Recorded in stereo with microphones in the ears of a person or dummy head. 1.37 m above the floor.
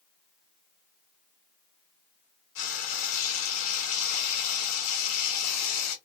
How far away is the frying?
About 1.9 m.